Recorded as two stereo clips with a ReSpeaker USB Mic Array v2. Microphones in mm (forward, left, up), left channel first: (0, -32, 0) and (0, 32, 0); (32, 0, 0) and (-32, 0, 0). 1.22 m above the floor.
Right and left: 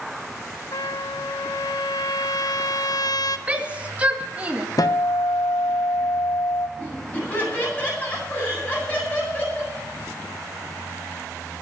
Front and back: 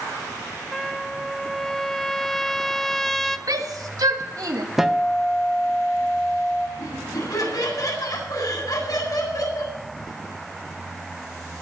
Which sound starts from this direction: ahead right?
Laughter, at 6.8 s.